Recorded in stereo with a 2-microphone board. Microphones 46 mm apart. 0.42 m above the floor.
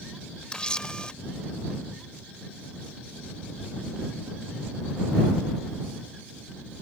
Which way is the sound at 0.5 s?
20° left (ahead or behind).